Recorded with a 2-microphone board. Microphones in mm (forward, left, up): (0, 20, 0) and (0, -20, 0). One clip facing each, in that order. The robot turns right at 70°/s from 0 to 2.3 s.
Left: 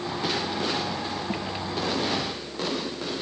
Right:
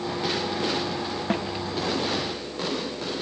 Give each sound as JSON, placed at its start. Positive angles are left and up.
{"t": 1.3, "sound": "a snare drum", "side_deg": -55}